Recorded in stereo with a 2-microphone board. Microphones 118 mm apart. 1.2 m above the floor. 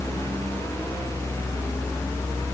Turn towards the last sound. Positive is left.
No sound to turn to.